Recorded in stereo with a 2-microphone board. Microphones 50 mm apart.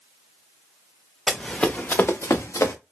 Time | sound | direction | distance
1.3 | running footsteps | 5° left (ahead or behind) | 0.7 m